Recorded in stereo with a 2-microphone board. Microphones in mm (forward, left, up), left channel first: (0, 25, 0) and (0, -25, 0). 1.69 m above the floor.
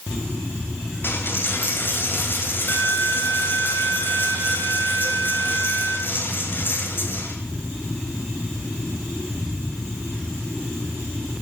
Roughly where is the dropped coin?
Left.